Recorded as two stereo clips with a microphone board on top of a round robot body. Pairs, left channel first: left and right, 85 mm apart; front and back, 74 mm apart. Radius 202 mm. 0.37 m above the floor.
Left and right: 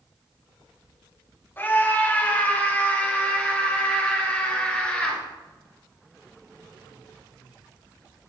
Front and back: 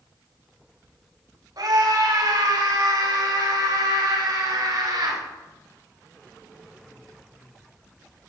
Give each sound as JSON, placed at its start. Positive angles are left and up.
{"t": 1.6, "sound": "a scream", "azimuth_deg": 155, "distance_m": 3.0}